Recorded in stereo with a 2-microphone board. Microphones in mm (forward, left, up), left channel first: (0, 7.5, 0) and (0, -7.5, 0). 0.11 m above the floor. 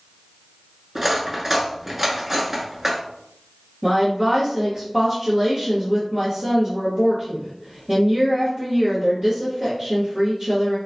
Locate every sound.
0.9 s cutlery clinking: 25° right (ahead or behind), 0.7 m
3.8 s a woman speaking: 35° right (ahead or behind), 1.6 m